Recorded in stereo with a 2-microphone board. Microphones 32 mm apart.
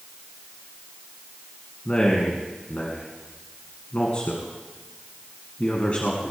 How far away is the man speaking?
About 2 m.